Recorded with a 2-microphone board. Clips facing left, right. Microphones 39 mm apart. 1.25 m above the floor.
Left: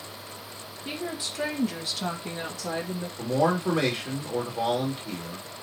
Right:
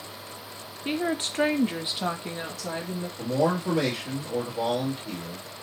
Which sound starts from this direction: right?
A woman speaking, at 0.8 s.